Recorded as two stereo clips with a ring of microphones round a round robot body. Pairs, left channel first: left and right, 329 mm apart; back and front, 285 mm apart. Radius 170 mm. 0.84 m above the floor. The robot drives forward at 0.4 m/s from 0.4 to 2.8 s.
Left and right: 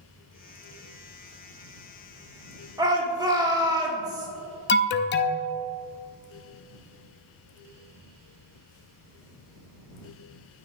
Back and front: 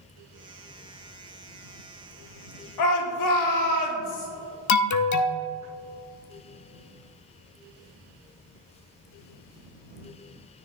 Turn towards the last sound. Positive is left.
turn(degrees=150)